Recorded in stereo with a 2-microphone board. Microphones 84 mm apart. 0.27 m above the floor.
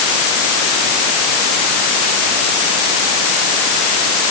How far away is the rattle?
I don't hear a rattle.